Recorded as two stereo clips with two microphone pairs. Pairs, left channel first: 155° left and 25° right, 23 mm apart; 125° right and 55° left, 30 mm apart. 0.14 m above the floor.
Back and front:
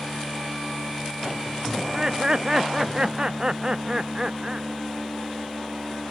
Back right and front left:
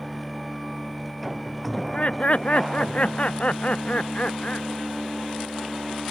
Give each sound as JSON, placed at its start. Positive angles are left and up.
{"t": 1.8, "sound": "laughter", "azimuth_deg": -85}